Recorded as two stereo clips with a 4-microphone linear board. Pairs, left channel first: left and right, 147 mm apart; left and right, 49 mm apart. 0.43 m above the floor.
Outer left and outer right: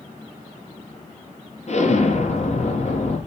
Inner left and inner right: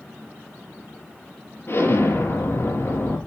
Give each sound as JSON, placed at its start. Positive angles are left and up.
{"t": 1.7, "sound": "an explosion", "side_deg": 50, "distance_m": 4.5}